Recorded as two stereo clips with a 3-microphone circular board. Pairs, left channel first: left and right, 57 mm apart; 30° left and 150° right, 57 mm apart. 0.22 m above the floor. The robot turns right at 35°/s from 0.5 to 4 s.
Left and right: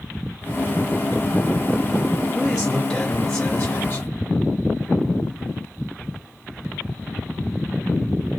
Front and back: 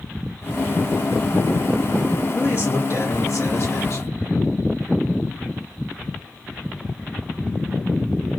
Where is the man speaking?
10° right, 2.5 m; by 4.2 s 45° left, 2.5 m.